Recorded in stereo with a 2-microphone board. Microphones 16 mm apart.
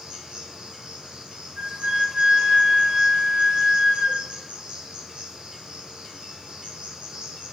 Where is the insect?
65° right (ahead or behind), 4.5 m.